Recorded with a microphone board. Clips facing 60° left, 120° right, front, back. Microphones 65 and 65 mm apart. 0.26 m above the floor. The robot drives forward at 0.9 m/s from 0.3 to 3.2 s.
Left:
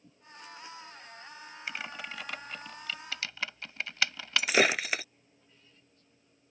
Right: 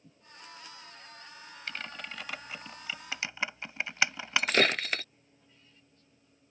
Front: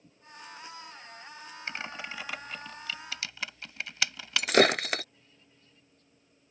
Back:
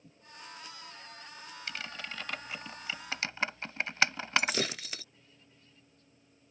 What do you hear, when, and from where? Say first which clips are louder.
1.7 s typing on a keyboard: left 1 dB, front 3 dB; 10° right; by 4.6 s 175° right
4.4 s breaking glass: left 1 dB, front 12 dB; 20° right